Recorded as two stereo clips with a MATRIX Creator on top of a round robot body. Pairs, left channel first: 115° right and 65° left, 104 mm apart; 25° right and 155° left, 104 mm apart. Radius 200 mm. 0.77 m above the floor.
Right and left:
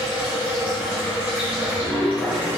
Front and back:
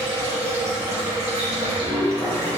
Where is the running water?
140° left, 2.5 m.